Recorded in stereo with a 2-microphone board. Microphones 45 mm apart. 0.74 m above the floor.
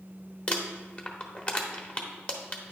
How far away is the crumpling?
About 1.1 m.